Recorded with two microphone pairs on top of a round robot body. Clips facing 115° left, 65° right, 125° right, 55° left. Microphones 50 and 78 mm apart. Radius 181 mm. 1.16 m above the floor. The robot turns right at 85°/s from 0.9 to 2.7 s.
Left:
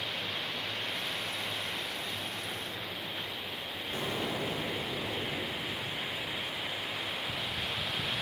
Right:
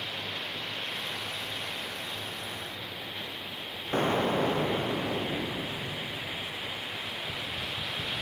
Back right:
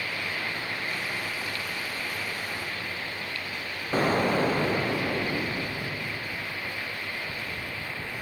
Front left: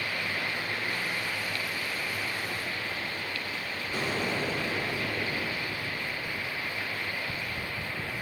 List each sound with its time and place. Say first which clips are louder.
3.9 s an explosion: right 9 dB, back right 8 dB; 95° right, 0.7 m